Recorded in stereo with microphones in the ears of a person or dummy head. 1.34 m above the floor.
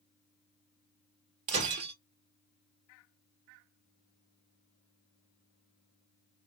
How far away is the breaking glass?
About 1.2 m.